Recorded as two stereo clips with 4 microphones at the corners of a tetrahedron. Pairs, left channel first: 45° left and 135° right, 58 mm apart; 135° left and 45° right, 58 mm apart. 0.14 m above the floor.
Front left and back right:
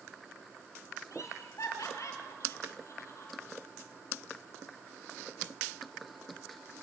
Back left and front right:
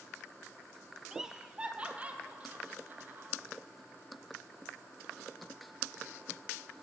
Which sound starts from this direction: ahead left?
Laughter, at 1.1 s.